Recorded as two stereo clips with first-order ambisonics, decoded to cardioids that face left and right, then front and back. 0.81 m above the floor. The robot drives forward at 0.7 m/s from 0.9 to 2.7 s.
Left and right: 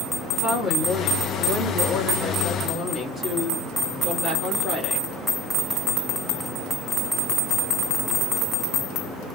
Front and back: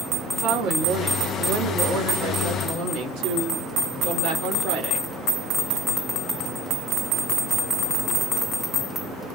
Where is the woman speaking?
145° left, 1.5 m; by 5.1 s 165° left, 2.5 m.